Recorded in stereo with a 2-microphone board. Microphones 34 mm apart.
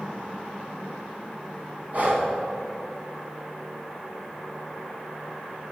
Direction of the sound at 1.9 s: 50° right (ahead or behind).